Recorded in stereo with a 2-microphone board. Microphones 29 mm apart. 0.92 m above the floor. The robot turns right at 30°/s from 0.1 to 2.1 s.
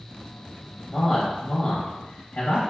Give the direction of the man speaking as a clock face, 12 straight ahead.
11 o'clock.